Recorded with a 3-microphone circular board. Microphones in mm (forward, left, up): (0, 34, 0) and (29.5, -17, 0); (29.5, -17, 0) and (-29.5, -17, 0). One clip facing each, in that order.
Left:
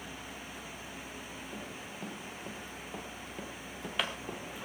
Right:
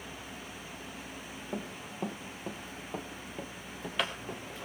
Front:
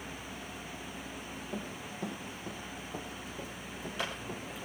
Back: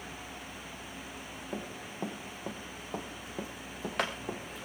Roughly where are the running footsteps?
Behind right.